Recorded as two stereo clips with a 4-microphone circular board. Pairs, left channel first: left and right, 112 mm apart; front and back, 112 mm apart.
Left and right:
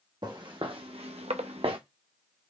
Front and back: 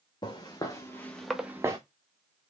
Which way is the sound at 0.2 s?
45° right.